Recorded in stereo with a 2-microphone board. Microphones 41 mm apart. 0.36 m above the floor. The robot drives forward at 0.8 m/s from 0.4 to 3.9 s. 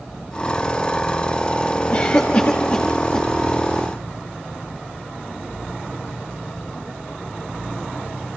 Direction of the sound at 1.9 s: 40° left (ahead or behind).